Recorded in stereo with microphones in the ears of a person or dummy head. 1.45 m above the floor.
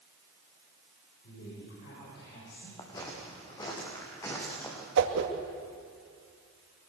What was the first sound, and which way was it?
A woman speaking, 65° left (ahead or behind).